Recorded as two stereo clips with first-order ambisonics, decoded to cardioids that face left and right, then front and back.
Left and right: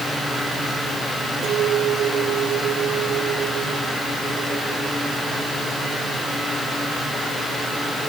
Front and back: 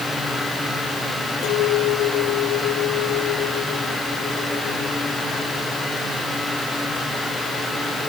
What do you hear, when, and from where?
1.4 s a clink: 35° right